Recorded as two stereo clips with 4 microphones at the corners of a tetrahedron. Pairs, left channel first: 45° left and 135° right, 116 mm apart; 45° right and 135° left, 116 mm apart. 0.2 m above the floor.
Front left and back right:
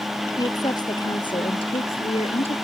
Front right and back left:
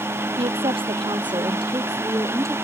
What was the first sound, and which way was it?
A woman speaking, 100° left.